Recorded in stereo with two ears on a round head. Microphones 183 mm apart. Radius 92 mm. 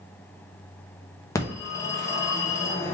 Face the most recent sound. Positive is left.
turn(degrees=15)  # may be behind; listen again after turning